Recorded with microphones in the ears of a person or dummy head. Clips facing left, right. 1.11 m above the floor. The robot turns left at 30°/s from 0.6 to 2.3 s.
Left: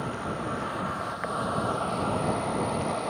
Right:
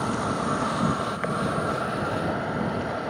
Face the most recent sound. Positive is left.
turn(degrees=-175)